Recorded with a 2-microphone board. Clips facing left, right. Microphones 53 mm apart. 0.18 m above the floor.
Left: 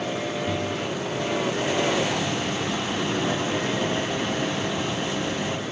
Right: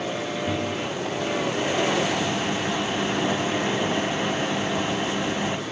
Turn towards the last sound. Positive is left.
turn(degrees=-20)  # may be behind; listen again after turning